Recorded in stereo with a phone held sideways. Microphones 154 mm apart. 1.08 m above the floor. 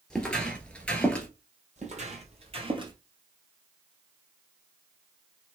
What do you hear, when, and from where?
0.1 s footsteps: 5° left (ahead or behind), 1.1 m
1.8 s footsteps: 50° right (ahead or behind), 1.6 m; by 2.9 s 30° right (ahead or behind), 1.3 m